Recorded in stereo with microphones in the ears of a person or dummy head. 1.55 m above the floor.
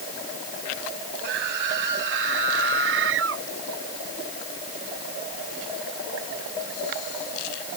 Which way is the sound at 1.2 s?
65° right (ahead or behind).